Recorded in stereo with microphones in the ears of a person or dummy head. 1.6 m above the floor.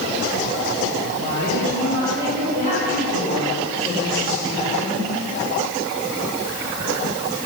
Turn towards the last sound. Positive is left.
turn(degrees=-15)  # may be behind; listen again after turning